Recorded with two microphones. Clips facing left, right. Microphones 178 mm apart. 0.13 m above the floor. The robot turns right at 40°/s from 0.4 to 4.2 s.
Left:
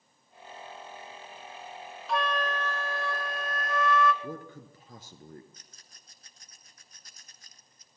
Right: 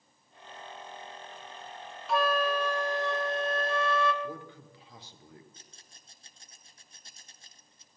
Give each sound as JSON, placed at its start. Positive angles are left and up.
{"t": 2.1, "sound": "a flute", "azimuth_deg": -175, "distance_m": 1.0}
{"t": 4.2, "sound": "a man speaking", "side_deg": 50, "distance_m": 1.8}
{"t": 5.5, "sound": "a rattle", "side_deg": -30, "distance_m": 1.4}